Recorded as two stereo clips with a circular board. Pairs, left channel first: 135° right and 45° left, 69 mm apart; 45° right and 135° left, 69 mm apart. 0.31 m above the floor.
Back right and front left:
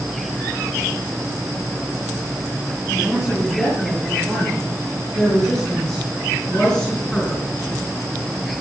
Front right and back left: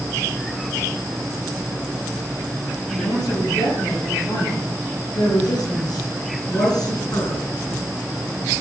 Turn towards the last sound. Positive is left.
turn(degrees=-60)